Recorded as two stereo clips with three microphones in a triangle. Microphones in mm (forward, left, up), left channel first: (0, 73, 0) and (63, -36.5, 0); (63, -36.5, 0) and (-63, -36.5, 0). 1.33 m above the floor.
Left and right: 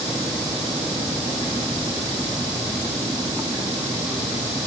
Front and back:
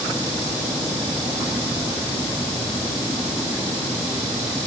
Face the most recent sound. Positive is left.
No sound to turn to.